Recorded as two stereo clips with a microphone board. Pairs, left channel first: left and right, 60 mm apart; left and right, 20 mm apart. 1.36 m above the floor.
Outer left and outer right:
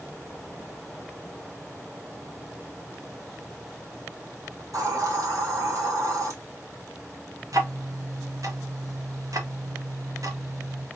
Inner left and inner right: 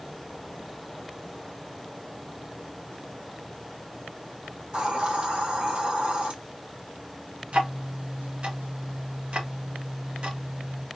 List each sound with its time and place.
4.6 s a hiss: 65° right (ahead or behind), 1.1 m
7.5 s ticking: 70° right (ahead or behind), 0.8 m